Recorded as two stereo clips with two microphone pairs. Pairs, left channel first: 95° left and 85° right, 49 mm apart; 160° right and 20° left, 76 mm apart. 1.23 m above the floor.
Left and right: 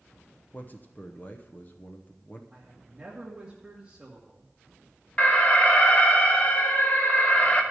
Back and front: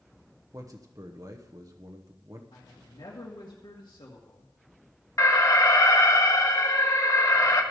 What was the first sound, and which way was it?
A man speaking, 50° left.